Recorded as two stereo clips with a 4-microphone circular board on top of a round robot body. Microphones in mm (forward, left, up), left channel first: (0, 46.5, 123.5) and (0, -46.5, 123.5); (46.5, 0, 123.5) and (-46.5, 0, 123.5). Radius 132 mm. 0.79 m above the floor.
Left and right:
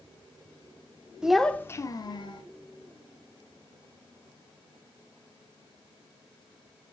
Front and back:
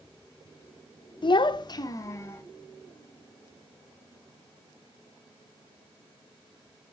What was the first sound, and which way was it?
A child speaking, 10° right.